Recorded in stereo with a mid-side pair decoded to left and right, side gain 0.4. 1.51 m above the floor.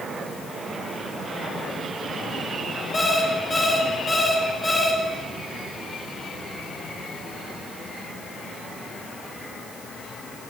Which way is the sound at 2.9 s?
25° left.